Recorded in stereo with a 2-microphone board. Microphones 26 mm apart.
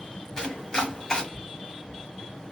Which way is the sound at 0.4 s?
30° left (ahead or behind).